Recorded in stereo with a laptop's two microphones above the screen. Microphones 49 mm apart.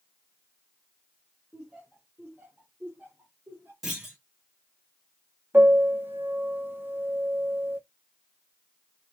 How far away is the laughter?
About 0.8 m.